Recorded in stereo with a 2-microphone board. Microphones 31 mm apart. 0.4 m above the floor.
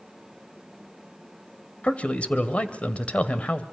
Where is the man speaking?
40° left (ahead or behind), 1.6 m.